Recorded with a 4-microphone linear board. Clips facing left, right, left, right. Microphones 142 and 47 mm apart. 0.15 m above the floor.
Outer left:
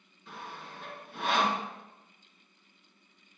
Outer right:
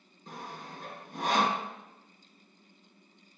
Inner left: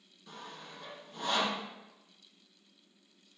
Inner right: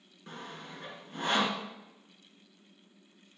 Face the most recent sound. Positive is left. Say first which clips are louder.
# outer right 1 dB, inner right 3 dB
turn(degrees=-40)  # may be behind; listen again after turning